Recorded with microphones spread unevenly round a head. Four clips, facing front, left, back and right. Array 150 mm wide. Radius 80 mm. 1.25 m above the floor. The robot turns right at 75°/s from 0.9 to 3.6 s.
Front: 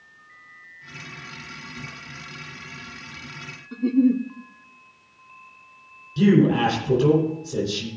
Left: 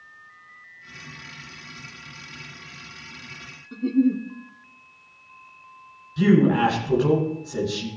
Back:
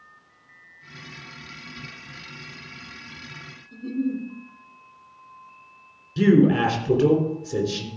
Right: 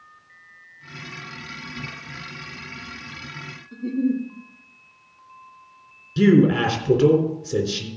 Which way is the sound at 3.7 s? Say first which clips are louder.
Left 2 dB, front 8 dB; 30° left.